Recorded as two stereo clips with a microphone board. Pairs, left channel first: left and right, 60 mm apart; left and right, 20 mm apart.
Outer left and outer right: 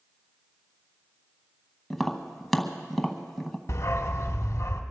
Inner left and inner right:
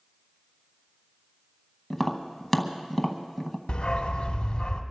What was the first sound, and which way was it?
Tapping, 5° left (ahead or behind).